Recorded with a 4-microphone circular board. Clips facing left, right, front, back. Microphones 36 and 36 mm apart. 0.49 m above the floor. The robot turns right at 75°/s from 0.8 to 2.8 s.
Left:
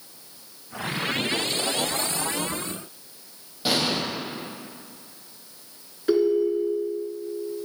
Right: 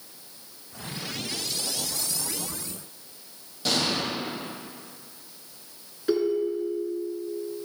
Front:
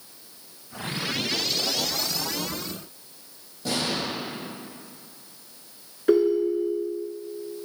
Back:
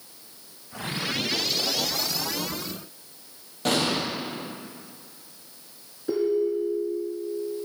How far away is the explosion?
About 4 m.